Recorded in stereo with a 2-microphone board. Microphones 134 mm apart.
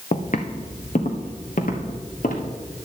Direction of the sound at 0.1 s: 60° left (ahead or behind).